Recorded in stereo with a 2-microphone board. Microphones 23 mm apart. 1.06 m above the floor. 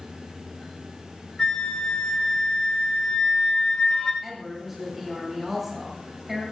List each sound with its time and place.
1.4 s a flute: 30° left (ahead or behind), 2.5 m
4.2 s a woman speaking: 5° right (ahead or behind), 7.5 m